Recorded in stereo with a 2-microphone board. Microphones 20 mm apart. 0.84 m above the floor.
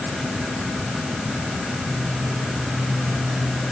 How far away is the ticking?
I don't hear ticking.